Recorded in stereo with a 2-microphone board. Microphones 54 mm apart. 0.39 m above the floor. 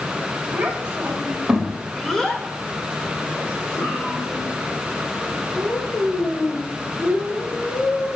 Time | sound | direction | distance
0.5 | a child speaking | 25° right (ahead or behind) | 2 m